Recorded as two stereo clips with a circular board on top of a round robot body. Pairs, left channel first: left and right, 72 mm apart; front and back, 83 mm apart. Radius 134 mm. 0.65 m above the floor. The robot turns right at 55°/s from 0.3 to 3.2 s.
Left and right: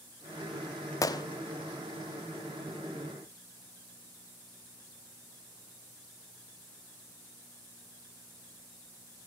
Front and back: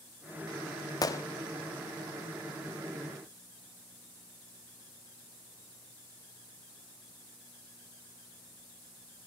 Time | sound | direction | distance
1.0 | a gunshot | 45° left | 0.8 m